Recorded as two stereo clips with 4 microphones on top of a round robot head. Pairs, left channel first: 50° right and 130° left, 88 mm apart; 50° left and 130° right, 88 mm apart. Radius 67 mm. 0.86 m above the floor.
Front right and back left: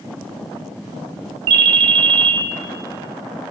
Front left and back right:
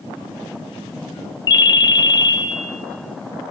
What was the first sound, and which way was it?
A ringtone, 95° left.